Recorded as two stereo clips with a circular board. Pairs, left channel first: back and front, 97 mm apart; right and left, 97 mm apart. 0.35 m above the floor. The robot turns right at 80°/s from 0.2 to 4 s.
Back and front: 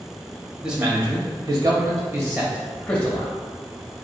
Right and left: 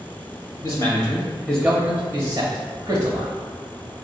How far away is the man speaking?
About 1.2 m.